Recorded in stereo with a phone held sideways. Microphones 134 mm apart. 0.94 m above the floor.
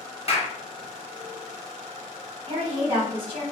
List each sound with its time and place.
0.3 s a clap: 50° left (ahead or behind), 0.8 m
2.5 s a woman speaking: 35° right (ahead or behind), 1.1 m